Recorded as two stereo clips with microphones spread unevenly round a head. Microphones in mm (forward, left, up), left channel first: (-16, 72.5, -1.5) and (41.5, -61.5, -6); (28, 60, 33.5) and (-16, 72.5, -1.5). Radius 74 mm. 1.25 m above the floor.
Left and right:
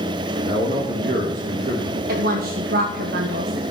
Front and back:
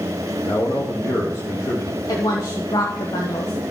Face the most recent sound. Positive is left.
turn(degrees=-65)